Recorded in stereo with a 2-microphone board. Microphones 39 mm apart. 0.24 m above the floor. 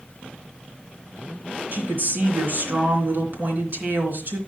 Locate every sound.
1.7 s a woman speaking: 55° right (ahead or behind), 3 m